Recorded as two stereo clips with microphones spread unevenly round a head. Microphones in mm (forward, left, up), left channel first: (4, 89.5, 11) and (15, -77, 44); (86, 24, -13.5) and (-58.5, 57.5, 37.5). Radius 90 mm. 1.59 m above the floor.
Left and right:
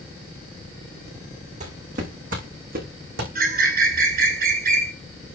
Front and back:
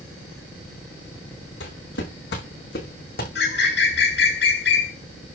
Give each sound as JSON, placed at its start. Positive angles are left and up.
{"t": 1.6, "sound": "footsteps", "azimuth_deg": -40, "distance_m": 6.0}
{"t": 3.4, "sound": "a bird", "azimuth_deg": -50, "distance_m": 6.0}